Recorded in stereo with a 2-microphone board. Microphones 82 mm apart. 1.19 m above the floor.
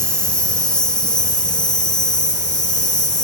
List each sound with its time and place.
0.0 s an insect: 15° left (ahead or behind), 1.9 m